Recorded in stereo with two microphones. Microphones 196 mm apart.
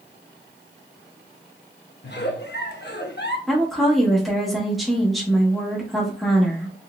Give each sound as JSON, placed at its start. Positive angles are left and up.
{"t": 2.0, "sound": "a giggle", "side_deg": 60, "distance_m": 0.6}
{"t": 3.5, "sound": "a woman speaking", "side_deg": 0, "distance_m": 1.0}